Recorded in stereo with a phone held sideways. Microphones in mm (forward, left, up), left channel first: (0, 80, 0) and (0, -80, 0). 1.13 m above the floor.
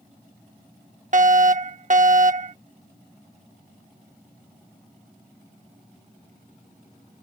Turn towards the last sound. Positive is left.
turn(degrees=-50)  # may be behind; listen again after turning